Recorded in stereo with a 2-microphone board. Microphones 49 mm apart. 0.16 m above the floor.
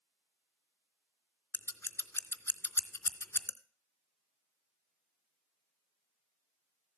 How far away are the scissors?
About 0.5 m.